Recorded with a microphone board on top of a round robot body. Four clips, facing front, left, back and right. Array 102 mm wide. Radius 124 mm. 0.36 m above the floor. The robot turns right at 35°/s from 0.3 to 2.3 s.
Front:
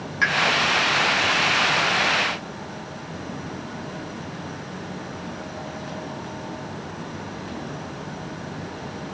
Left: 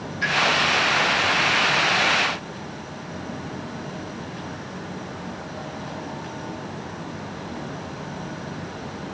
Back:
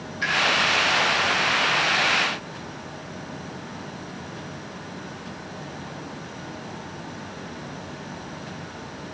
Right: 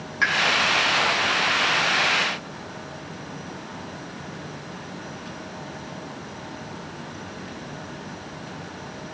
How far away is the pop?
About 3.5 m.